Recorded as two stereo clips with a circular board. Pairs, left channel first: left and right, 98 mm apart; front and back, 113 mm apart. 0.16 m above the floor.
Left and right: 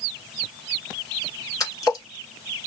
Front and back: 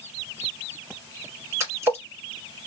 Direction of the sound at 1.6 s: 125° left.